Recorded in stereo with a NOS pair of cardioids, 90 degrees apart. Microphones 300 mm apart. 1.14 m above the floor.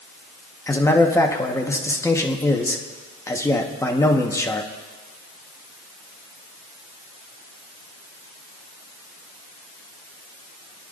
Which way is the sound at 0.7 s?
10° left.